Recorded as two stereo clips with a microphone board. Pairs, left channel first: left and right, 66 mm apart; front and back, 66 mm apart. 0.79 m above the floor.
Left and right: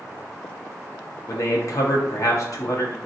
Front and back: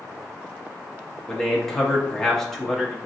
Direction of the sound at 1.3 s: 85° left.